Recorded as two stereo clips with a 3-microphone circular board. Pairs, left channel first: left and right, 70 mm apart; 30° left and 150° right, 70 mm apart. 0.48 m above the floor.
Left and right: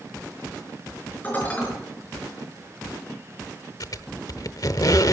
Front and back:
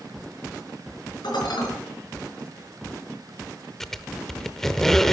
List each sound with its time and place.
1.2 s dishes clattering: 20° left, 4.5 m
3.8 s a squeak: 115° left, 0.7 m